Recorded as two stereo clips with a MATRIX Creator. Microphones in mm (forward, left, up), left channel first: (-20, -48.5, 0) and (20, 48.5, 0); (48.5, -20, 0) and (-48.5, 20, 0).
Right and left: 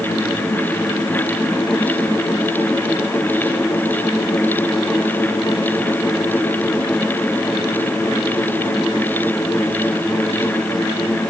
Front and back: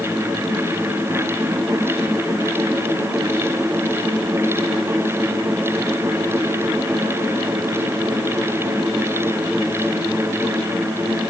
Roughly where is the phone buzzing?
I don't hear a phone buzzing.